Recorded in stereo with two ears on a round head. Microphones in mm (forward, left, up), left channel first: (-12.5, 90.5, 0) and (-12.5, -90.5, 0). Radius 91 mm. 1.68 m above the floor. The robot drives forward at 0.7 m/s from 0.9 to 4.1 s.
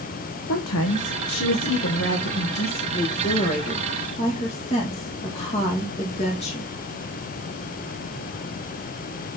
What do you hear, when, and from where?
0.5 s a woman speaking: 80° left, 1.4 m; by 6.7 s 35° left (ahead or behind), 2.5 m